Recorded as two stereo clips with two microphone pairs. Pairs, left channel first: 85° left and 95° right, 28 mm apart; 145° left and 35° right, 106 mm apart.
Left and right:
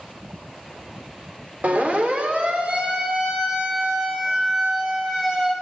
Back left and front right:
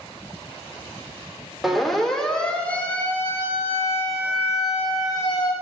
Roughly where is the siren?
Behind right.